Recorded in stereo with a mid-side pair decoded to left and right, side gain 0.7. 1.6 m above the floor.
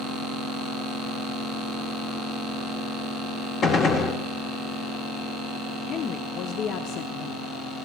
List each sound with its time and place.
3.6 s a gunshot: 35° left, 1.1 m
5.9 s a woman speaking: 50° left, 0.6 m